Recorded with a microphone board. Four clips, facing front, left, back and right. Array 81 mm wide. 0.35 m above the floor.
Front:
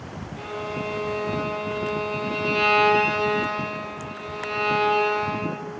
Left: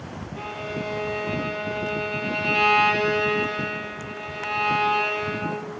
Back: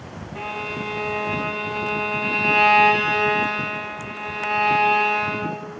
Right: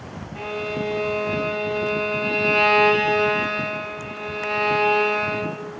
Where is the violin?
160° right, 1.5 m.